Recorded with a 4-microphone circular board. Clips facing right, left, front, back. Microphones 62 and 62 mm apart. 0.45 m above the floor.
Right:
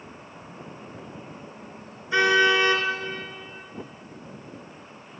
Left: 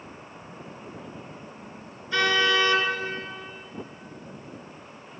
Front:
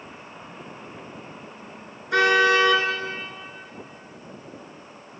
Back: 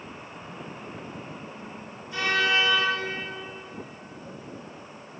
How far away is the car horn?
About 3.5 m.